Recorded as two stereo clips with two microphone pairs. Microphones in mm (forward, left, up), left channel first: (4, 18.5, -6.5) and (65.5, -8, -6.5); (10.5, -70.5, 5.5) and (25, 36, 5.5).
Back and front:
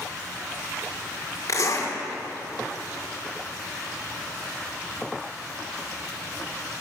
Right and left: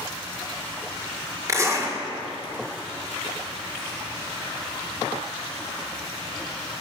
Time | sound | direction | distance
1.5 | a zipper | 135° left | 2.0 m